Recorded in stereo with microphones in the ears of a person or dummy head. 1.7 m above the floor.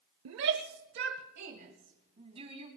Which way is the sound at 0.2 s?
80° right.